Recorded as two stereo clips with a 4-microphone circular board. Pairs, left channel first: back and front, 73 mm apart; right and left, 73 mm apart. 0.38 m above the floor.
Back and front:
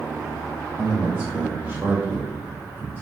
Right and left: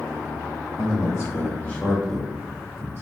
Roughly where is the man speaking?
Right.